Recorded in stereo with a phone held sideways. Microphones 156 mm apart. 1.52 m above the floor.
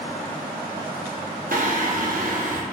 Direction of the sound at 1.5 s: 65° right (ahead or behind).